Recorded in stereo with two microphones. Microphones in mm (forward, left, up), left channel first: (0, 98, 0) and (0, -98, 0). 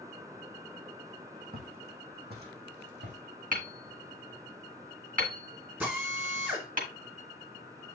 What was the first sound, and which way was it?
Footsteps, 50° right (ahead or behind).